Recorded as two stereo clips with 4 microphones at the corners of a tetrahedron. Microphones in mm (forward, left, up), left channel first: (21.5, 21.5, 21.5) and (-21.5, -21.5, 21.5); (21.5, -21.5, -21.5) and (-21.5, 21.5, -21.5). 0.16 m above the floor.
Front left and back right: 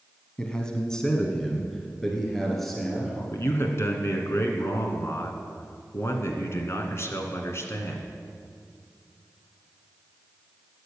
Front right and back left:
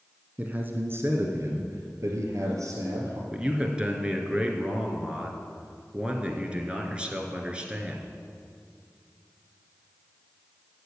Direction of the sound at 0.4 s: 105° left.